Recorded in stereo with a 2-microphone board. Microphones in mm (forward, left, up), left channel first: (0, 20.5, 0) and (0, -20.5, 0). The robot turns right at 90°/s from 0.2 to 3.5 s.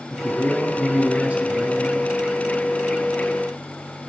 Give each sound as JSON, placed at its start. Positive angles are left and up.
{"t": 0.1, "sound": "a man speaking", "azimuth_deg": 155, "distance_m": 1.5}